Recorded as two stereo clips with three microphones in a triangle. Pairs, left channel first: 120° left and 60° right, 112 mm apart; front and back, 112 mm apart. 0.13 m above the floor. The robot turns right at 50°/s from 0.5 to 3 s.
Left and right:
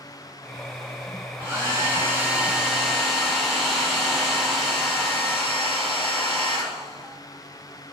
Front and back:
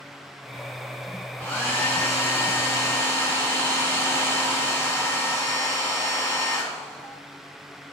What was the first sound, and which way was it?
A hair dryer, 50° right.